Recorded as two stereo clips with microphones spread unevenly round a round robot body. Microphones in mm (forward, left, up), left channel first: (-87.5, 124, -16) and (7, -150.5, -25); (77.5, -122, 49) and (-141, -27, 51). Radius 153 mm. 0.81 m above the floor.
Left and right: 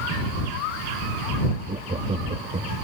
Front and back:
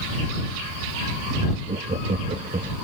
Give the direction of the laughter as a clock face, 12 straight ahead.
5 o'clock.